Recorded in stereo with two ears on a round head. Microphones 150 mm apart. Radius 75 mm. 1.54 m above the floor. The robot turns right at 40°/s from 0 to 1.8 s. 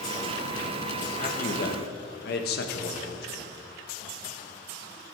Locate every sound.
1.2 s a man speaking: 40° left (ahead or behind), 1.5 m; by 3.6 s 65° left (ahead or behind), 1.5 m